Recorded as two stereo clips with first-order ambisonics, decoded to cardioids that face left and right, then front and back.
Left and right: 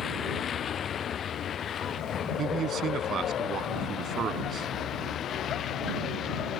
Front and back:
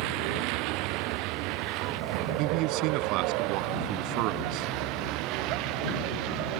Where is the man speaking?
150° right.